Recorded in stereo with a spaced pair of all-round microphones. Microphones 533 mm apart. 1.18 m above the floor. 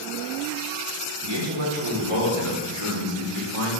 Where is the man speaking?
45° right (ahead or behind), 1.0 m; by 3.7 s 70° right (ahead or behind), 2.5 m.